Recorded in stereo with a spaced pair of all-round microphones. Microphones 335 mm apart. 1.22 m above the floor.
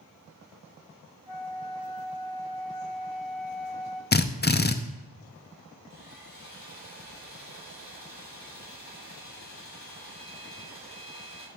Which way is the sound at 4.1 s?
30° left (ahead or behind).